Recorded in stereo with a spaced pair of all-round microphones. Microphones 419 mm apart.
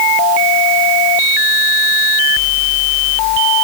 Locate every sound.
Only background noise.